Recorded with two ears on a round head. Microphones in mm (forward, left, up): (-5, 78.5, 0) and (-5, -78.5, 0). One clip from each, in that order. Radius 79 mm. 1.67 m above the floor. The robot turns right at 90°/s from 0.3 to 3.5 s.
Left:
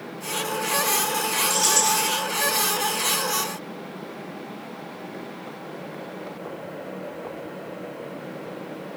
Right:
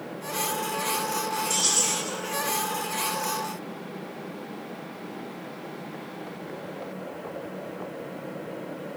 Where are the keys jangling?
5° left, 1.2 m; by 2.1 s 60° left, 1.2 m.